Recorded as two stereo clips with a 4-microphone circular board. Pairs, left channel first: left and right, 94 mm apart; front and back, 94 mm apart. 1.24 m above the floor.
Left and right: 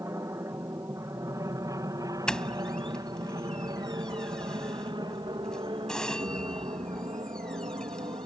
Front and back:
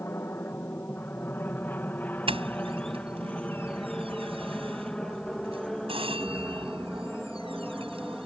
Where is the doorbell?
170° left.